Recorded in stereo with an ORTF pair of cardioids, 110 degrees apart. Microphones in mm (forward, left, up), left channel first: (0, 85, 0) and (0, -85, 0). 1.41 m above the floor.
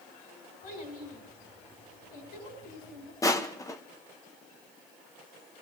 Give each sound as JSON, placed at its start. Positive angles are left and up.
{"t": 0.6, "sound": "a child speaking", "azimuth_deg": 65, "distance_m": 8.0}
{"t": 3.2, "sound": "crushing", "azimuth_deg": 20, "distance_m": 1.0}